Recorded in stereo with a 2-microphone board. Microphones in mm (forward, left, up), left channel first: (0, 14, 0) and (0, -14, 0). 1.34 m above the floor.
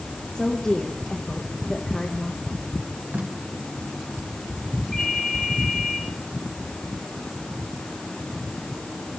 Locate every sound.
0.3 s a woman speaking: 30° left (ahead or behind), 1.7 m
3.1 s tape being pulled: 85° right, 1.8 m
4.9 s a ringtone: 15° left (ahead or behind), 8 m